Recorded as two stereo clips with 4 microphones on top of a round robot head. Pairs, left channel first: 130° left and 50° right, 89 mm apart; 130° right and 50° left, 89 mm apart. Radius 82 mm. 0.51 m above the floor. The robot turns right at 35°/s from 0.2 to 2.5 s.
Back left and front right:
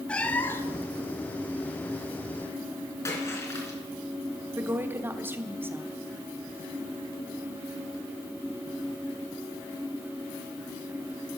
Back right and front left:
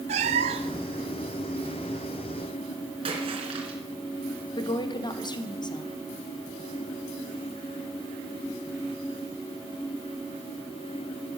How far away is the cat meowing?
About 0.5 m.